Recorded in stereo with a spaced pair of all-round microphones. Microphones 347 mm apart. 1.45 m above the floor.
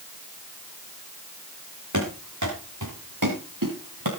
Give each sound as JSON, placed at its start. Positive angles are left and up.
{"t": 1.9, "sound": "running footsteps", "side_deg": -55, "distance_m": 7.0}